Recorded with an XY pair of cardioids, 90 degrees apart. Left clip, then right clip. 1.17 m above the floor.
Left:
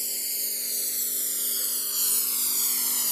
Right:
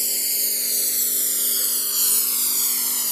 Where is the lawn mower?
50° right; by 3.1 s 20° right.